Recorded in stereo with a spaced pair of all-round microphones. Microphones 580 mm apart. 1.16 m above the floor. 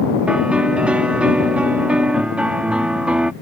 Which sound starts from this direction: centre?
A piano, at 0.3 s.